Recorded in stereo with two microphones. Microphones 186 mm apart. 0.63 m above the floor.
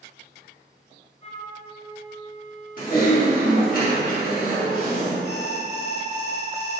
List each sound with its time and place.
1.2 s a flute: 35° left (ahead or behind), 0.6 m
2.8 s typing on a keyboard: 50° left (ahead or behind), 1.4 m
5.2 s an alarm: 20° left (ahead or behind), 1.2 m